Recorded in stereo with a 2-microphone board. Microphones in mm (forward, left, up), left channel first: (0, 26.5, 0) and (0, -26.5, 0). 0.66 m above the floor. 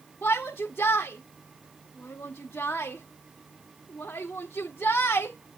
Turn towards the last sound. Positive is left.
turn(degrees=35)  # may be behind; listen again after turning